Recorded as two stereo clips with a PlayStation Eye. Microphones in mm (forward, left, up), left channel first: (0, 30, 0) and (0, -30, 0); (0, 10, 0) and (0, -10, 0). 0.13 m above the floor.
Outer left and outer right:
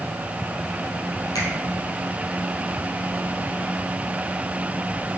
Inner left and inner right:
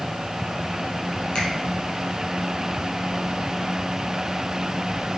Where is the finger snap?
70° left (ahead or behind), 4 m.